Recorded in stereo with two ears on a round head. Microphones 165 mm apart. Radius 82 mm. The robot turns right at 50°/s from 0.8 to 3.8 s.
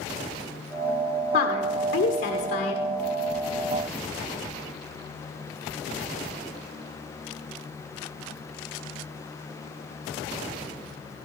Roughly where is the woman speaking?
Ahead left.